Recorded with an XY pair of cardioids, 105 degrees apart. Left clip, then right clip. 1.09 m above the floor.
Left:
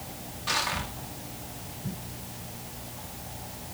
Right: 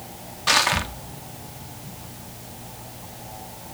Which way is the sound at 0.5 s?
65° right.